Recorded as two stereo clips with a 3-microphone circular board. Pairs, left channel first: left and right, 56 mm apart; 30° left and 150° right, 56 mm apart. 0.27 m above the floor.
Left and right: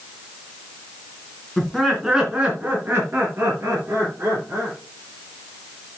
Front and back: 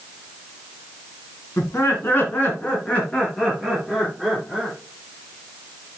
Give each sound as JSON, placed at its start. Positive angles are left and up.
{"t": 1.6, "sound": "laughter", "azimuth_deg": 10, "distance_m": 2.5}